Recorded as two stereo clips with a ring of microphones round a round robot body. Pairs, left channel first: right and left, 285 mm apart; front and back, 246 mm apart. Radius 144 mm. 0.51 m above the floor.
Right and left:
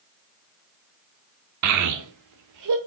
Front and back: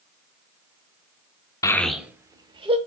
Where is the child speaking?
75° left, 0.6 m; by 2.8 s 110° left, 1.0 m.